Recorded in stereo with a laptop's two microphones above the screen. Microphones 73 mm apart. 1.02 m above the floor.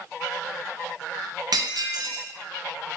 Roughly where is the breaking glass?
Right.